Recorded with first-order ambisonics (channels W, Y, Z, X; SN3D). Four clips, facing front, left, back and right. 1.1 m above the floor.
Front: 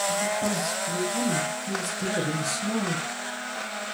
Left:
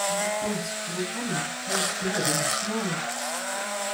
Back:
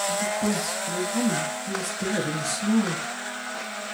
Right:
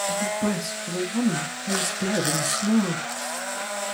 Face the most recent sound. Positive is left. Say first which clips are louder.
# right 2 dB, back 1 dB
turn(degrees=-100)